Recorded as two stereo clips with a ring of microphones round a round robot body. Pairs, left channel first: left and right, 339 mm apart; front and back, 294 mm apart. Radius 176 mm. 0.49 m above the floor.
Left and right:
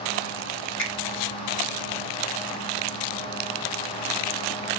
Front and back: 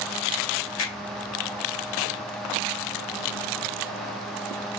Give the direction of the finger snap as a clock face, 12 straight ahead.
11 o'clock.